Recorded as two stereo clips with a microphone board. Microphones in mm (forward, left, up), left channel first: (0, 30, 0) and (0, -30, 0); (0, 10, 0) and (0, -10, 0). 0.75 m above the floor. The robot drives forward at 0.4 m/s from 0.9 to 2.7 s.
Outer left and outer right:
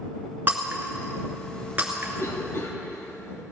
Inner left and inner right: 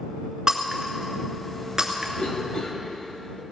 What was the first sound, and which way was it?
Breaking glass, 35° right (ahead or behind).